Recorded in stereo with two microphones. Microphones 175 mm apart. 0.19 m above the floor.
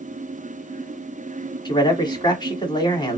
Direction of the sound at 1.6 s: 25° left (ahead or behind).